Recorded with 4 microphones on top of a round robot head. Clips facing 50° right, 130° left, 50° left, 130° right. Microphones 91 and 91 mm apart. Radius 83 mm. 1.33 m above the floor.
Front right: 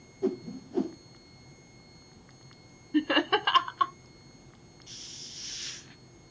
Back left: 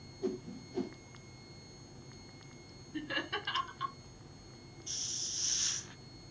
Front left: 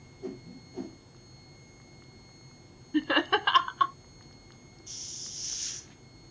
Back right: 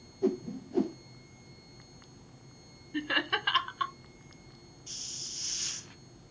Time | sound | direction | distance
0.2 | a whoosh | 100° right | 0.8 m
2.9 | laughter | 10° right | 0.6 m
4.9 | a hiss | 170° right | 0.8 m